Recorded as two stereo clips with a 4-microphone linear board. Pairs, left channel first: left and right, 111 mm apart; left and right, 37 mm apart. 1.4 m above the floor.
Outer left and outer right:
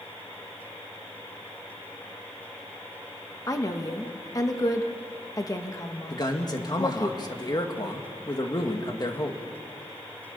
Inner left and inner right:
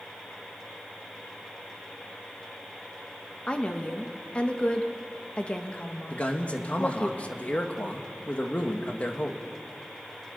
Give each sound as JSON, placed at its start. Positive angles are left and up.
{"t": 3.5, "sound": "a woman speaking", "side_deg": 30, "distance_m": 1.6}
{"t": 6.1, "sound": "a man speaking", "side_deg": 40, "distance_m": 2.0}